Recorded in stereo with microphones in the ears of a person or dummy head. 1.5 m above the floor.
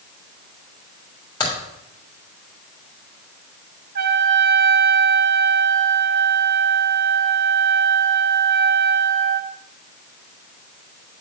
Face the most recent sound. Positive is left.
turn(degrees=-50)  # may be behind; listen again after turning